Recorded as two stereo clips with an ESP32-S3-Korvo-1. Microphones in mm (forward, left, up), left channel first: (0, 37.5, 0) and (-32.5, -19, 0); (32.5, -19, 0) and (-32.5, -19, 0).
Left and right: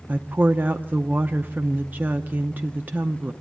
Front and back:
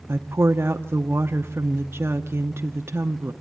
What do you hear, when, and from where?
0.1 s a woman speaking: 165° right, 0.6 m